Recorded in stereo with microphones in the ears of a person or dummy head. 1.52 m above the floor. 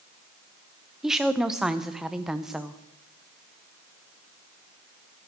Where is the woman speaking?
Centre (ahead or behind), 0.5 m.